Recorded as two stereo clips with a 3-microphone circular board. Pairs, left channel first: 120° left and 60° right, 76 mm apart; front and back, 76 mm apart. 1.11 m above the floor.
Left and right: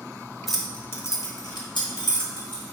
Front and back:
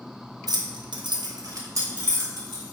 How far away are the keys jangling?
About 0.6 m.